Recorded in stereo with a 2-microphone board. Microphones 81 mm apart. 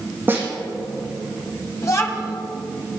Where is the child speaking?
40° left (ahead or behind), 1.4 m.